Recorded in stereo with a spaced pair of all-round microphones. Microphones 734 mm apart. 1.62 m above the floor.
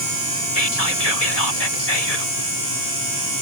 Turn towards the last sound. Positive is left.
turn(degrees=50)  # may be behind; listen again after turning